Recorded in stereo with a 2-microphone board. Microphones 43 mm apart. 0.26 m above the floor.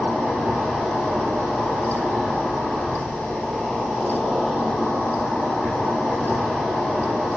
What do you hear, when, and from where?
0.0 s an insect: 5° right (ahead or behind), 1.3 m